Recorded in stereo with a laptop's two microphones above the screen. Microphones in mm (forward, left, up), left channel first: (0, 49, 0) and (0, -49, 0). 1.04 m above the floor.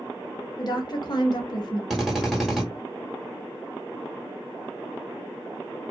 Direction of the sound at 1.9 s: Centre (ahead or behind).